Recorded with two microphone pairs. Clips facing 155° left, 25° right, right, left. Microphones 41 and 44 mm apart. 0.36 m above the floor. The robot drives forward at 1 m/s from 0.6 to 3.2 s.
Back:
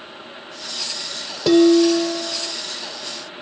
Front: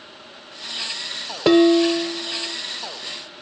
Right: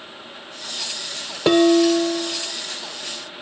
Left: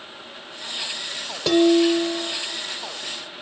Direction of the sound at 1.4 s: 45° right.